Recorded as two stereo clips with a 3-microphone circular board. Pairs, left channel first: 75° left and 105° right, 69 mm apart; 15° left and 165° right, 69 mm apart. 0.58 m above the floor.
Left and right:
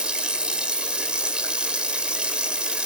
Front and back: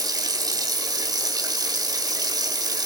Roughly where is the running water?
Behind.